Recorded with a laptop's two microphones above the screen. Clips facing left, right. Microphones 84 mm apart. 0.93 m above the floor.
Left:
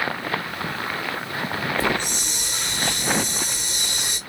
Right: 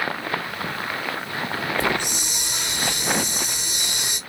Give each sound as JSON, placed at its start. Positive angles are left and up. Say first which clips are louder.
{"t": 1.8, "sound": "a hiss", "louder": "even", "side_deg": -10, "distance_m": 2.0}